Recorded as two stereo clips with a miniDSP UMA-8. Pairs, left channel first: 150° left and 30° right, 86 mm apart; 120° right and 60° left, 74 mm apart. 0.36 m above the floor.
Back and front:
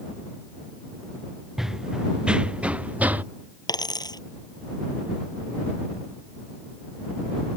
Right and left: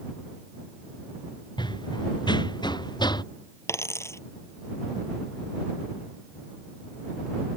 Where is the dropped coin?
175° right.